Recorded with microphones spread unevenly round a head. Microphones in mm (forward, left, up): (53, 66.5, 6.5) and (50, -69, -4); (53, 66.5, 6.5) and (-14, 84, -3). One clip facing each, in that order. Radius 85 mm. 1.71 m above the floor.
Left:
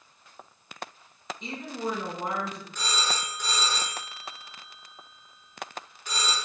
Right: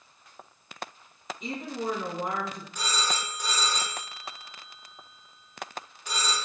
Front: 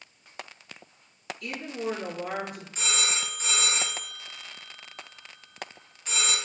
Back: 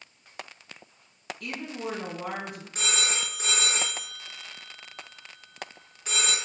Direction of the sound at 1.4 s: 175° right.